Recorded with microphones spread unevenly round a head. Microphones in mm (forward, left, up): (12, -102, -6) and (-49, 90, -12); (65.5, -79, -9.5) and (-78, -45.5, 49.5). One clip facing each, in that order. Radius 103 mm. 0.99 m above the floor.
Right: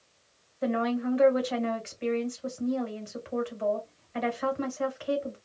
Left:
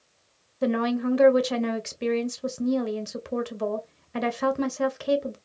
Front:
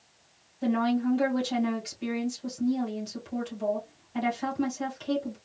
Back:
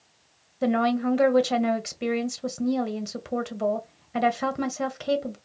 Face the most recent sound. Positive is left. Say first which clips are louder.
# left 3 dB, back 3 dB
turn(degrees=125)